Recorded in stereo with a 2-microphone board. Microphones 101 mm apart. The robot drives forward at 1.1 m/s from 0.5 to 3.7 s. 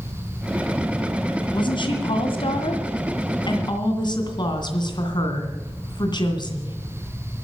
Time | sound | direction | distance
1.5 | a woman speaking | 50° left (ahead or behind) | 2.5 m